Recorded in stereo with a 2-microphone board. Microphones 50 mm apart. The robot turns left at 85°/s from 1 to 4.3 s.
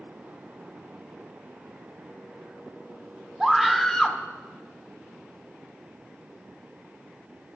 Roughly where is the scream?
Centre.